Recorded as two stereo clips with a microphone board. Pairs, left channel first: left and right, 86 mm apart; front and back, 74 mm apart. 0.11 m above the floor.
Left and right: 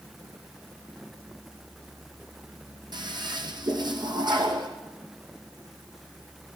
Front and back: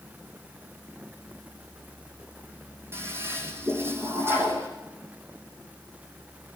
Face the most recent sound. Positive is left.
turn(degrees=-125)